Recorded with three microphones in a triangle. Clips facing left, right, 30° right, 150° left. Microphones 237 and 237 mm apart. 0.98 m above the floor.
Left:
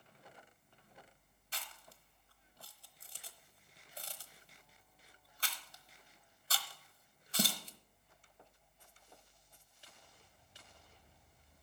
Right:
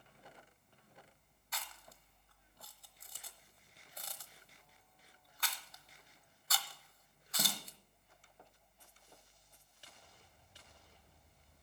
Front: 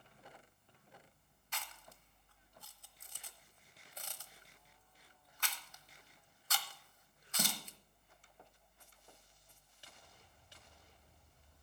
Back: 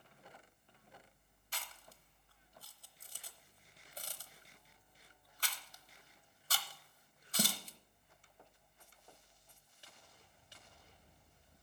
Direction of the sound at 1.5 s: 125° left.